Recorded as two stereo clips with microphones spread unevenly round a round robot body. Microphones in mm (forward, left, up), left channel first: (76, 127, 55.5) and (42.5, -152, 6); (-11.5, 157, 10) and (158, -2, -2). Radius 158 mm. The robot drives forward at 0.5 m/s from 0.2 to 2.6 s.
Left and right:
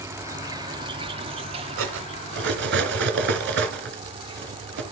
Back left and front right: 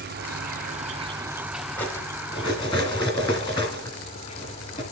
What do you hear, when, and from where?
0.0 s an insect: 30° right, 0.8 m; by 4.9 s 160° right, 0.9 m
1.8 s cutlery clinking: 140° right, 1.3 m; by 4.8 s 150° right, 1.7 m